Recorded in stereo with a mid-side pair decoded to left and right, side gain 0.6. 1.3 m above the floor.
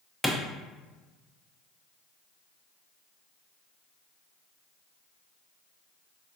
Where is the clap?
Straight ahead, 0.7 m.